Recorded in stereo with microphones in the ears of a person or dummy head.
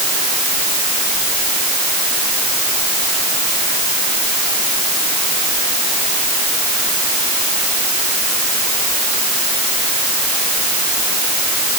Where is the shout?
No shout in this recording.